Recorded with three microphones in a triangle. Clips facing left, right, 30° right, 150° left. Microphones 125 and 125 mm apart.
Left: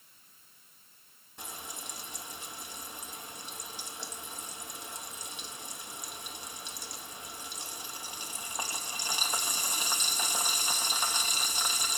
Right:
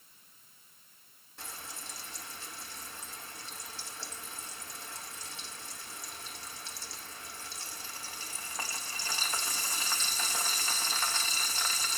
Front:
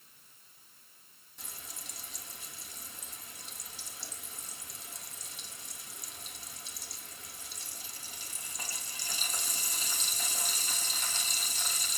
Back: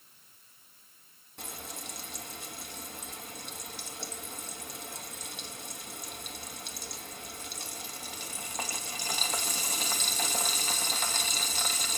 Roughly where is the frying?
Behind.